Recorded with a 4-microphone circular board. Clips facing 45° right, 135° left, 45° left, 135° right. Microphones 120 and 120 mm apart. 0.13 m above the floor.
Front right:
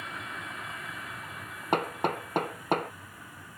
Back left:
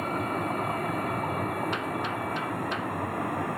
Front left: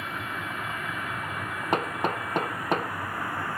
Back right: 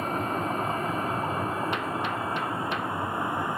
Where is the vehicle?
175° left; by 3.6 s 155° left.